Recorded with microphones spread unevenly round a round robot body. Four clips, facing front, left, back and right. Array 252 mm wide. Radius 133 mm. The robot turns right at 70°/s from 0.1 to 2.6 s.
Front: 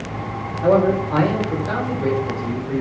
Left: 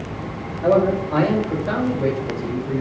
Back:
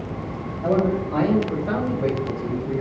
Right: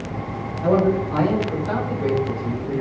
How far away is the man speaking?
About 4 m.